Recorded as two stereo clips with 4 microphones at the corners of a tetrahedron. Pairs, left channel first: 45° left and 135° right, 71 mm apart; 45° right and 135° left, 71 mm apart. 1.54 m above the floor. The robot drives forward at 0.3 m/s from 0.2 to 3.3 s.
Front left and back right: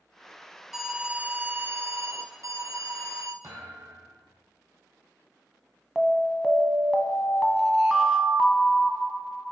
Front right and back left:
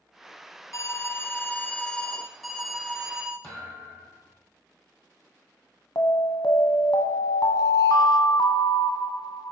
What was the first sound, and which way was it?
An alarm, 50° right.